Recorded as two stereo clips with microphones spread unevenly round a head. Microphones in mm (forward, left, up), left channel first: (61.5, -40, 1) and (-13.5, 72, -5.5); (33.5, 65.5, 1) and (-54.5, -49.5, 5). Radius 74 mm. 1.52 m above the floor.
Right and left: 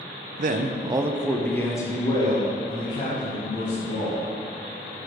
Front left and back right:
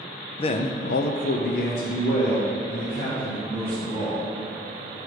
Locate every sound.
0.4 s a man speaking: 105° left, 0.6 m; by 4.2 s 10° right, 2.5 m